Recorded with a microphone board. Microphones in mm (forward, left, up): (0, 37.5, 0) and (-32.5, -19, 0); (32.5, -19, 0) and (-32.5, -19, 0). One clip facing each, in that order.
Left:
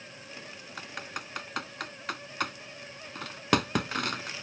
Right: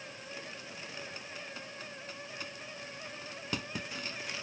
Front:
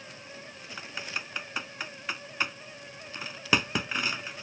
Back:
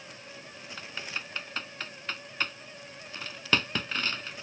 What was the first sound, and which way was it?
Typing on a keyboard, 80° left.